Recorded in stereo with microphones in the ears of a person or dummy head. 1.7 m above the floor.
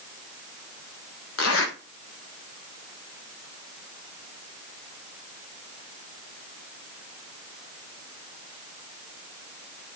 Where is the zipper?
70° left (ahead or behind), 0.8 m.